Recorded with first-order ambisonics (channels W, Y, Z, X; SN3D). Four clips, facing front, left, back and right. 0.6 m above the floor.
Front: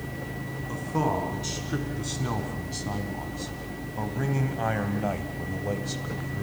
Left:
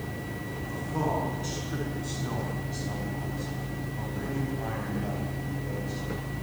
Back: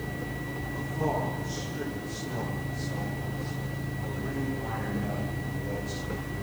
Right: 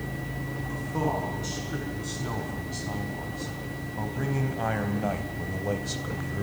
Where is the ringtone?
No ringtone in this recording.